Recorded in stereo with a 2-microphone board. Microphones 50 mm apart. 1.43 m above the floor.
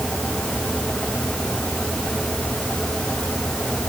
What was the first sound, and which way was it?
Only background noise.